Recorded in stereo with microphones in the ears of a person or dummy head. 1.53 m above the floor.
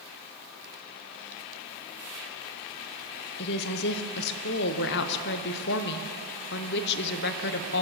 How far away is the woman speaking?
About 0.9 m.